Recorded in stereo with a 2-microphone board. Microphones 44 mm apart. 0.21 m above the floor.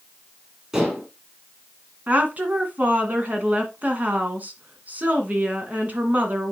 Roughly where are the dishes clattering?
Centre.